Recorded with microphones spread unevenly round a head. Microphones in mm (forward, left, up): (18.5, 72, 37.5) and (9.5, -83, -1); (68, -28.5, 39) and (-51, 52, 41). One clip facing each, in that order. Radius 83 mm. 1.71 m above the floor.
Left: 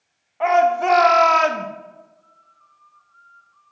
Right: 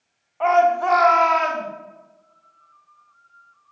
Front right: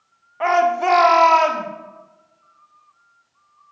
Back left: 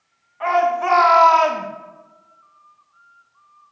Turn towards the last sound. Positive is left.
turn(degrees=65)